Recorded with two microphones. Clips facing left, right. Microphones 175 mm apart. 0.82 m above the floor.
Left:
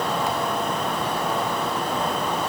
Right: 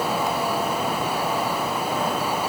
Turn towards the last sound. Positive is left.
No sound to turn to.